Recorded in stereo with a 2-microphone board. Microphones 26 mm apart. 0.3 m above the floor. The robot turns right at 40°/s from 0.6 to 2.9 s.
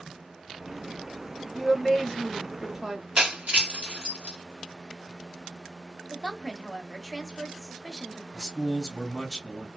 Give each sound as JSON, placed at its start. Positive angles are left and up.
{"t": 1.5, "sound": "a woman speaking", "azimuth_deg": -170, "distance_m": 1.3}
{"t": 3.2, "sound": "breaking glass", "side_deg": -75, "distance_m": 1.5}
{"t": 6.1, "sound": "a woman speaking", "side_deg": -10, "distance_m": 0.9}
{"t": 8.3, "sound": "a man speaking", "side_deg": -5, "distance_m": 1.9}